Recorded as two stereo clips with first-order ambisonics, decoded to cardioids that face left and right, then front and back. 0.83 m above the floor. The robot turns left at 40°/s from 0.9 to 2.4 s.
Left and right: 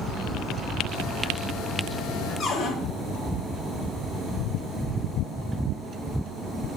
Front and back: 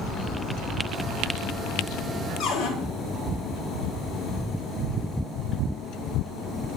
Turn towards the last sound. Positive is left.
turn(degrees=30)